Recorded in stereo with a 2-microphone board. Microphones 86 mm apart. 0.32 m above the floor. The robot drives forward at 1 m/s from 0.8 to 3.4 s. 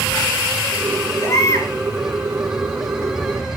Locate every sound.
1.2 s a baby crying: 35° left (ahead or behind), 3.5 m; by 1.7 s 40° left (ahead or behind), 3 m